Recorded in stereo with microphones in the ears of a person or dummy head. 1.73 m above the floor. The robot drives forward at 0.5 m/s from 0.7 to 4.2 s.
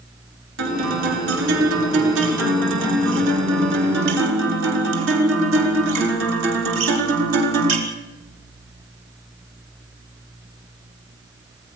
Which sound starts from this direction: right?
A guitar, at 0.6 s.